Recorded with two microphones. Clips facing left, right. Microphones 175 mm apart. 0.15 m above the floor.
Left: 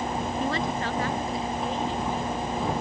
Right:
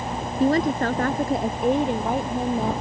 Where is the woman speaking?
40° right (ahead or behind); by 2.7 s 65° right (ahead or behind).